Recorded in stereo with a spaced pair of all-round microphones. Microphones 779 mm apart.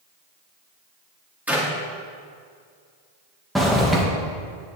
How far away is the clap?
About 3 m.